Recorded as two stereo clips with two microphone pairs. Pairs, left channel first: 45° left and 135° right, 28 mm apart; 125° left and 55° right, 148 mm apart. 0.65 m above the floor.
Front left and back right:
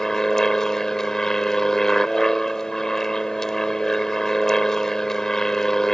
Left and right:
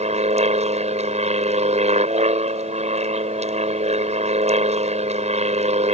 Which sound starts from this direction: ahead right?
An aircraft, at 0.0 s.